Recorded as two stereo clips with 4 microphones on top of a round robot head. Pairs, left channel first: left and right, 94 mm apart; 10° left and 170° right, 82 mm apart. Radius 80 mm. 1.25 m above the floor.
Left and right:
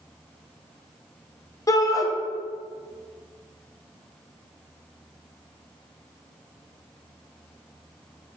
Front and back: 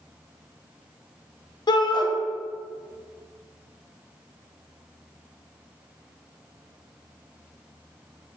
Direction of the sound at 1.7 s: 35° left.